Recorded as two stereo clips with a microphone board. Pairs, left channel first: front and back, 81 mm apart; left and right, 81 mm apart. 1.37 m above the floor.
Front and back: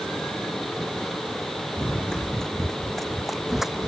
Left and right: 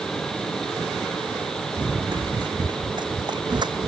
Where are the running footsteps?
80° right; by 3.9 s 95° right.